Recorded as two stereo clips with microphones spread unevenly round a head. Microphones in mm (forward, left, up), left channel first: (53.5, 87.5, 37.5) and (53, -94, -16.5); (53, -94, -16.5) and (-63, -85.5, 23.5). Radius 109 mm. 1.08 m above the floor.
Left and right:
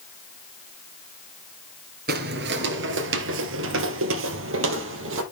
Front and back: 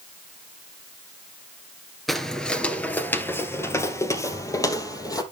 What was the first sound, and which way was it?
Footsteps, 125° right.